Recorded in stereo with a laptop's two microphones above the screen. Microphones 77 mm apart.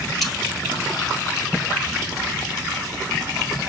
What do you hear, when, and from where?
0.2 s cutlery clinking: centre (ahead or behind), 0.9 m